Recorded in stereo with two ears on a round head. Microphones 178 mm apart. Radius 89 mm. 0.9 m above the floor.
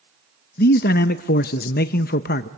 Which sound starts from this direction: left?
A man speaking, at 0.6 s.